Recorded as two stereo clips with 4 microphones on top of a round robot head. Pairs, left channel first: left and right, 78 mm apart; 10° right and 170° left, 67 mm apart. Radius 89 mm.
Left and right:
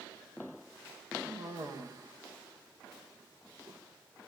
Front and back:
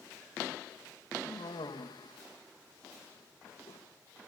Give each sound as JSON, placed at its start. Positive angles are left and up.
{"t": 1.2, "sound": "a cough", "azimuth_deg": -35, "distance_m": 2.0}